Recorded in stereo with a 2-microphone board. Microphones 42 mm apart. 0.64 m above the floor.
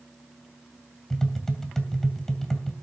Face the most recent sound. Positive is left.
turn(degrees=5)  # may be behind; listen again after turning